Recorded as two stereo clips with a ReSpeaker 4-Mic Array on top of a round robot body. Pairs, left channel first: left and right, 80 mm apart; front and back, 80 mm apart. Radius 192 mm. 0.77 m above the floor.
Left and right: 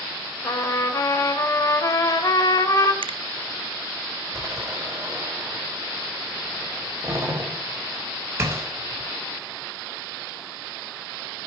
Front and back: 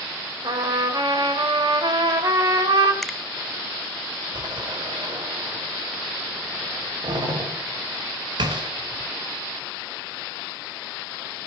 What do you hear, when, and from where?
0.4 s a trumpet: 140° left, 3 m
3.0 s a finger snap: 85° right, 0.8 m
4.3 s a door slam: 150° right, 4 m